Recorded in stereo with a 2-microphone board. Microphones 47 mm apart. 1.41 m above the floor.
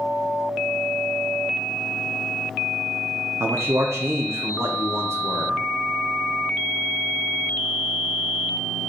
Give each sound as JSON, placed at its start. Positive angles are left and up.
{"t": 3.4, "sound": "a man speaking", "side_deg": -85, "distance_m": 1.0}